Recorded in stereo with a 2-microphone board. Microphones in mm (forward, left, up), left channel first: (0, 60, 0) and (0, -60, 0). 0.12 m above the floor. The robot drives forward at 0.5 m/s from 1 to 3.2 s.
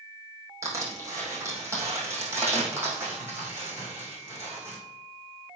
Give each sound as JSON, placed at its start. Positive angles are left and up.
{"t": 0.6, "sound": "crushing", "side_deg": -25, "distance_m": 3.5}